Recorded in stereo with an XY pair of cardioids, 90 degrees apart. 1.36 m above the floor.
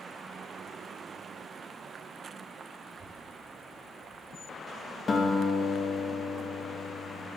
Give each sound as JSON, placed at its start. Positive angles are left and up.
{"t": 2.8, "sound": "a child speaking", "azimuth_deg": -40, "distance_m": 3.0}
{"t": 5.1, "sound": "a guitar", "azimuth_deg": 40, "distance_m": 2.0}